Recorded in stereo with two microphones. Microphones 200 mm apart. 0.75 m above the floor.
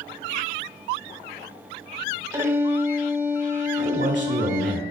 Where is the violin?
15° right (ahead or behind), 1.5 m.